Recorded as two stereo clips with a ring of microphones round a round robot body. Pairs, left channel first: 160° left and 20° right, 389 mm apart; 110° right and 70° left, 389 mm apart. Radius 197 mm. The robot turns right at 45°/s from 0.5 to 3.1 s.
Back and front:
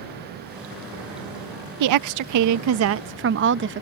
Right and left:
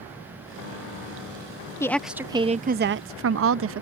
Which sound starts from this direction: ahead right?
A woman speaking, at 1.8 s.